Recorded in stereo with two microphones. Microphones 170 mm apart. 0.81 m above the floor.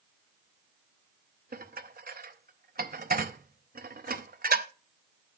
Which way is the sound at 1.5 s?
60° right (ahead or behind).